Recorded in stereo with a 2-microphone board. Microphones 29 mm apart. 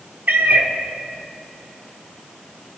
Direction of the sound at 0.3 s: 70° right (ahead or behind).